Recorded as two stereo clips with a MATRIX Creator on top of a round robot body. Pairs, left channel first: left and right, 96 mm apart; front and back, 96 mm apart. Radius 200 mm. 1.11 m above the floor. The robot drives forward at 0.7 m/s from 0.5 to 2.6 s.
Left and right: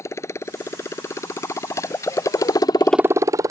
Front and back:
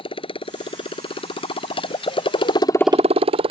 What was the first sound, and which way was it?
A motorcycle, 30° left.